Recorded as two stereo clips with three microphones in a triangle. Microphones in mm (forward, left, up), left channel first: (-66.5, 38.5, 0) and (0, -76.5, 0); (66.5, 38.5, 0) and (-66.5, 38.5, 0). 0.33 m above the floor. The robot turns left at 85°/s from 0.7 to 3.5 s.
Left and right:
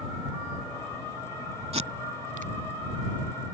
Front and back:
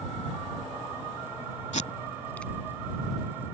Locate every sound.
1.7 s tape being pulled: 20° right; by 2.5 s 90° right